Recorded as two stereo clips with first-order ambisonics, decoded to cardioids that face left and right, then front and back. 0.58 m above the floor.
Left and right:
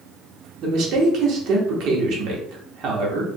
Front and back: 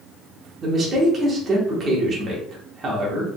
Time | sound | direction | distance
0.6 | a man speaking | 120° right | 1.3 m